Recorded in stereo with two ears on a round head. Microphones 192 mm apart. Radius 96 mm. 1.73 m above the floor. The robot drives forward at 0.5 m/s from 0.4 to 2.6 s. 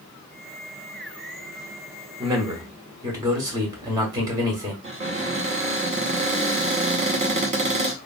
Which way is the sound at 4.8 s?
30° right (ahead or behind).